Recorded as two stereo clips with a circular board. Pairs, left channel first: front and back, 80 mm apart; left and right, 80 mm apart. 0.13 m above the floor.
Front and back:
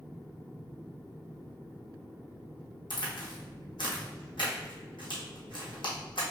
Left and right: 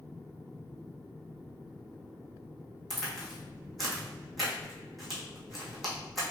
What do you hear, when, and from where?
2.9 s a crack: straight ahead, 1.7 m